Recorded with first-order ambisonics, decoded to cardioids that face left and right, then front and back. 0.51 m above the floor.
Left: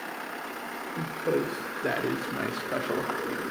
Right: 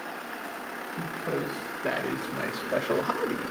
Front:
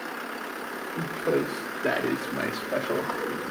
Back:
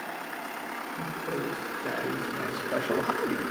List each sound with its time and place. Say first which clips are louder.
1.0 s a man speaking: left 4 dB, front 9 dB; 35° left, 1.9 m; by 3.5 s 160° right, 1.0 m